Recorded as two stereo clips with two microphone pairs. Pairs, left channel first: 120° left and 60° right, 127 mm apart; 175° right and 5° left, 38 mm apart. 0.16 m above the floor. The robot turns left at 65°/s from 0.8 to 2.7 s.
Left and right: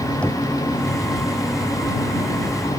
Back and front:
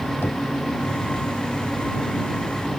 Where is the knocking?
160° right.